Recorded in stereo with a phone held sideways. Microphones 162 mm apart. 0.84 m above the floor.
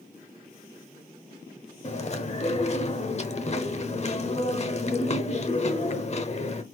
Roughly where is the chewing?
Left.